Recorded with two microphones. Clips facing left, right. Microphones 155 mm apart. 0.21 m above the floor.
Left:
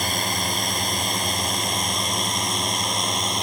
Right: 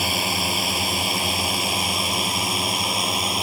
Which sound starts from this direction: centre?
A drone, at 0.0 s.